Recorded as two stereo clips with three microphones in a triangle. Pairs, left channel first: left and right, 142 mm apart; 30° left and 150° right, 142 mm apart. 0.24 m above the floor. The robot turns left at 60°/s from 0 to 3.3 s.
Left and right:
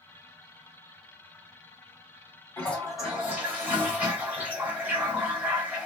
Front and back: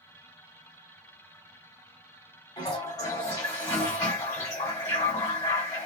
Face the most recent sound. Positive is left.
turn(degrees=-20)